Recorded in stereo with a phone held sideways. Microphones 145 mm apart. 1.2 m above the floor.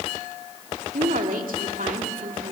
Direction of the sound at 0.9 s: 80° right.